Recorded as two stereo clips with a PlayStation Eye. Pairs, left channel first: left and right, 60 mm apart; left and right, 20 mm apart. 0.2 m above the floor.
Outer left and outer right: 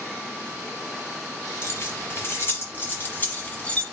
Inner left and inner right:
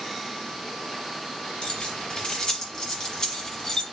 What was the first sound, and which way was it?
Keys jangling, 45° left (ahead or behind).